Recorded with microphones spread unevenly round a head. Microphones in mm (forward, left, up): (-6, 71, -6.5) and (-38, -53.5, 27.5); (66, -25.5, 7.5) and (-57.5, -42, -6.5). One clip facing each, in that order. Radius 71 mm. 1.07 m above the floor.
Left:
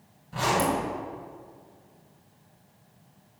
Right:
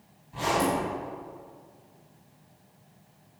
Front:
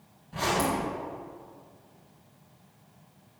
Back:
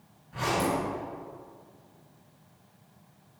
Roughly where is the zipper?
Left.